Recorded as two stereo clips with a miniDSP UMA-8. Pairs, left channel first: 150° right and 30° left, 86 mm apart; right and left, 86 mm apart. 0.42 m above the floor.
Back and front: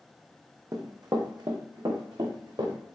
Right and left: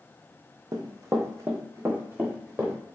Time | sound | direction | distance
0.7 | running footsteps | 65° left | 0.8 m